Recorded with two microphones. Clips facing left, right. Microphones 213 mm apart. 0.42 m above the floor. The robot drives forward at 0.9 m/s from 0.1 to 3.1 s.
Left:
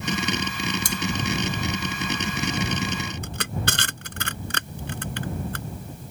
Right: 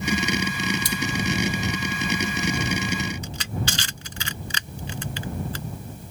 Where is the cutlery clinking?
50° left (ahead or behind).